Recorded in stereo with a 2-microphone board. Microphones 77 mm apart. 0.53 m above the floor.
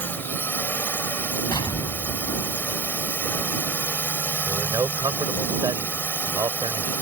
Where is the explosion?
75° left (ahead or behind).